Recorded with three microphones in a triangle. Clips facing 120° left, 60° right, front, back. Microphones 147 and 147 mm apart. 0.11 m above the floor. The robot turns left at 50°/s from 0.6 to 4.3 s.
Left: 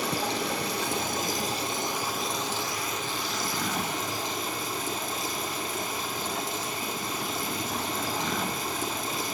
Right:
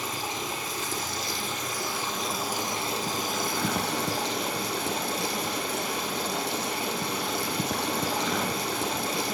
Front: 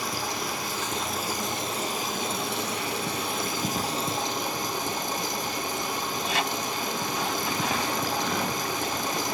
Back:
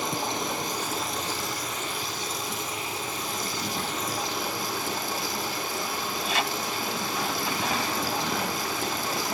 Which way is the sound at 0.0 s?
115° left.